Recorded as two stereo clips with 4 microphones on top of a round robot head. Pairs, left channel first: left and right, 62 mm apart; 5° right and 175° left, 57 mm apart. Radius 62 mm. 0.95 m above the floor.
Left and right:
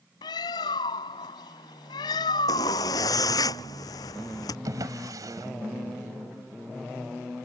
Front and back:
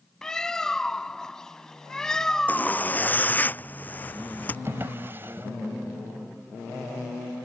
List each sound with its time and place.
0.2 s a bird: 80° left
2.5 s a zipper: 60° left
4.7 s a drawer: 115° right